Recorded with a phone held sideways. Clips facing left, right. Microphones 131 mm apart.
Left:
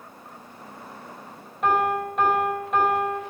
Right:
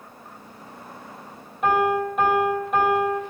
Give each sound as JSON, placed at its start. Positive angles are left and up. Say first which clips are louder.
{"t": 1.6, "sound": "a piano", "louder": "right 2 dB", "side_deg": -5, "distance_m": 3.0}